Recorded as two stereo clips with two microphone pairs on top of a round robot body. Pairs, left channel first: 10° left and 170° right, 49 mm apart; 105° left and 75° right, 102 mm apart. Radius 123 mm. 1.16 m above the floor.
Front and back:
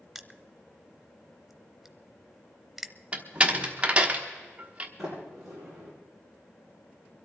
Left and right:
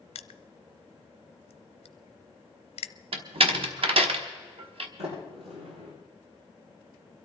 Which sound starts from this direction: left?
Crushing, at 0.1 s.